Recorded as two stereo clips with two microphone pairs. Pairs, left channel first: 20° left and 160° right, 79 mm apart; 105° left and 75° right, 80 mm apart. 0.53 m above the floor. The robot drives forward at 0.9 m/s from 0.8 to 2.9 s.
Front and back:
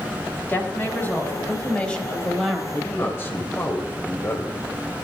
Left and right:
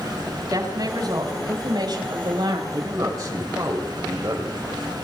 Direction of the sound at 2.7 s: 25° right.